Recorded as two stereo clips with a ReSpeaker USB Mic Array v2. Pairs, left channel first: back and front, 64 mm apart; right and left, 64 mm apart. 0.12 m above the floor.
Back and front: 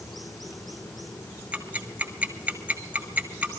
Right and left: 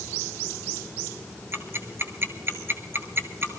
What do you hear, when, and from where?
1.5 s ticking: 60° left, 1.2 m